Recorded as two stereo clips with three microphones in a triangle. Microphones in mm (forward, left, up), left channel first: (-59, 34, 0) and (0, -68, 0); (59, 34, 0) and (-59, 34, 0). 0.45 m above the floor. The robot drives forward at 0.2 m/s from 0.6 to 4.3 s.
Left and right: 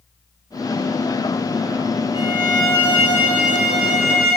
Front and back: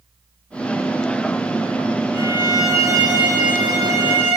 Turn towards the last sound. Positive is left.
turn(degrees=-140)